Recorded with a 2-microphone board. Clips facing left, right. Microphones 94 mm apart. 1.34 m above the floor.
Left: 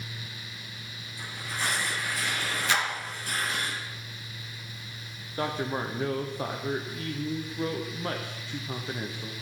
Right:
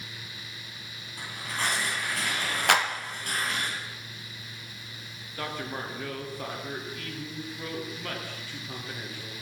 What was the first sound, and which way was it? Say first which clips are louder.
Tearing paper: right 1 dB; 65° right (ahead or behind).